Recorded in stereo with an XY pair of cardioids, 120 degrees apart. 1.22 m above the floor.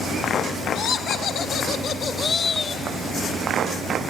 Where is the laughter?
70° left, 2 m; by 2.8 s 30° left, 1.6 m.